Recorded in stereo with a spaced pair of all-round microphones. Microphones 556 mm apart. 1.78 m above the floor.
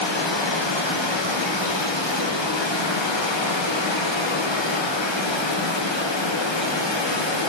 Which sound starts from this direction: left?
Running water, at 0.0 s.